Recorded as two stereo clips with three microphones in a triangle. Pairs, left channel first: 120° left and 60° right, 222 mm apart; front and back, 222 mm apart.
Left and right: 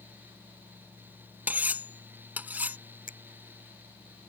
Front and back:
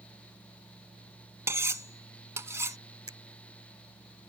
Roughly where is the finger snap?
Behind.